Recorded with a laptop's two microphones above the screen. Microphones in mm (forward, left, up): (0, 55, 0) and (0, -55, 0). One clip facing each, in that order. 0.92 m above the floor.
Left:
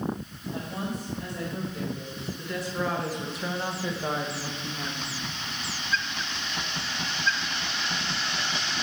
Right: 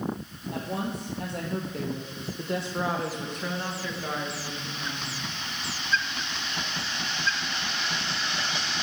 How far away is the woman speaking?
About 1.9 m.